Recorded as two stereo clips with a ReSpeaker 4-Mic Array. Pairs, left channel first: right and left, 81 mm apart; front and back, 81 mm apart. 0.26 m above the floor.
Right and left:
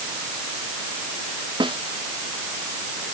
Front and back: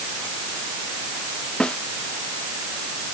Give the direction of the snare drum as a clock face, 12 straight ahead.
9 o'clock.